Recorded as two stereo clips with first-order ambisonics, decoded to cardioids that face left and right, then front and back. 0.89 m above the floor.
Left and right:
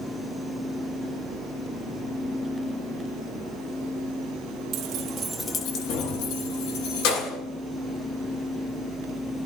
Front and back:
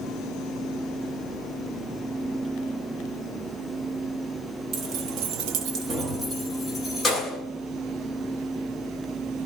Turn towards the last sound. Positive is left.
turn(degrees=90)